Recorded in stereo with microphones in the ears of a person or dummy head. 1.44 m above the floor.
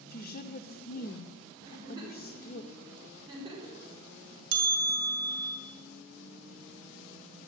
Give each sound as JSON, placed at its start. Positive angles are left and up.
{"t": 0.1, "sound": "a woman speaking", "side_deg": 50, "distance_m": 0.7}
{"t": 1.6, "sound": "a giggle", "side_deg": -30, "distance_m": 5.5}
{"t": 4.5, "sound": "a bell", "side_deg": -65, "distance_m": 2.0}